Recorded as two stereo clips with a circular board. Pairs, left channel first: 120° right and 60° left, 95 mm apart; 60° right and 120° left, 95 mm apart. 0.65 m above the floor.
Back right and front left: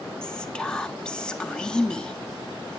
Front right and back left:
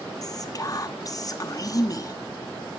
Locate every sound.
0.2 s whispering: 45° right, 0.8 m